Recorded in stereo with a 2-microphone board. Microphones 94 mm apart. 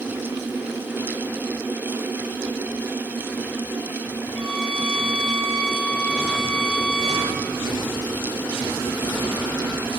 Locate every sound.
4.3 s a violin: centre (ahead or behind), 5 m